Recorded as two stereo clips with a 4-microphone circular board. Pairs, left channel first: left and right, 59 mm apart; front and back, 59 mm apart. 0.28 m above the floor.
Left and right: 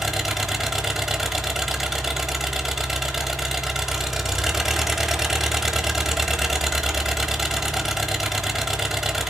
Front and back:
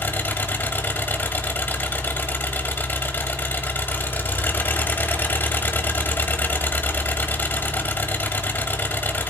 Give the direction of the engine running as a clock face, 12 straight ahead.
12 o'clock.